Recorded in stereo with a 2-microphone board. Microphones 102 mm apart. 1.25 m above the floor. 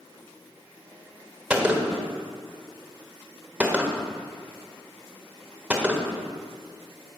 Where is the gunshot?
10° right (ahead or behind), 1.2 m.